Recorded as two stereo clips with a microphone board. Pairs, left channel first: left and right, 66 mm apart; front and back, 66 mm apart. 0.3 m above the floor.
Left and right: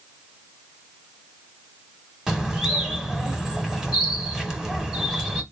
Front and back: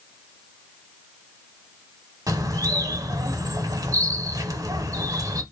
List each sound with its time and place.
2.3 s a bird: 170° right, 0.9 m